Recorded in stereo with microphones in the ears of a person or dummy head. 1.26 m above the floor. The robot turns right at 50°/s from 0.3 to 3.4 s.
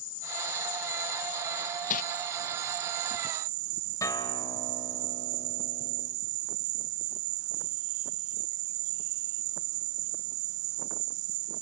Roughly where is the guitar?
Centre.